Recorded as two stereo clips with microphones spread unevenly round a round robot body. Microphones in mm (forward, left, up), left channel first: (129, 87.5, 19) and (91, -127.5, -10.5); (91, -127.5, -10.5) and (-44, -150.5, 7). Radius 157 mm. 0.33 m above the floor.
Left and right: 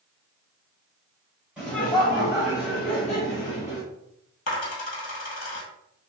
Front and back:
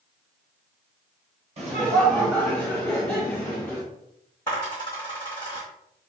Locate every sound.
1.6 s laughter: 175° right, 1.1 m; by 3.8 s 135° left, 3.5 m
4.5 s a dropped coin: 95° left, 1.6 m